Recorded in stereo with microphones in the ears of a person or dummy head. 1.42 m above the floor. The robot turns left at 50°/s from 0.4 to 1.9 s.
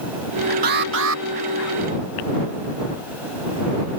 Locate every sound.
0.6 s an alarm: 50° right; by 1.2 s 80° right